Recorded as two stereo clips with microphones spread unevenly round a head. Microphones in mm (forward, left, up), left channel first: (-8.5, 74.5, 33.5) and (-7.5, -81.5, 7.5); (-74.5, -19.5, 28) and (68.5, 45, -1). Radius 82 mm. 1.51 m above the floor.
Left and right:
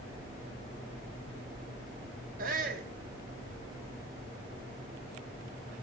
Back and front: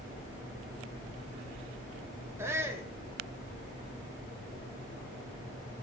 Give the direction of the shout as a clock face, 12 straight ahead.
2 o'clock.